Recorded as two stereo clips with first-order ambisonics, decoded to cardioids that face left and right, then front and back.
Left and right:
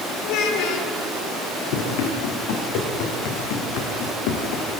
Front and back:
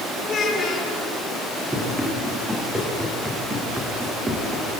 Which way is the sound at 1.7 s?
100° left.